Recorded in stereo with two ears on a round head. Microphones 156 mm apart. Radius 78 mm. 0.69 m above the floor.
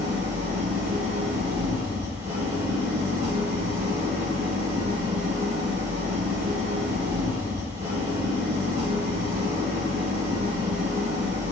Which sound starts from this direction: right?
An engine running, at 0.0 s.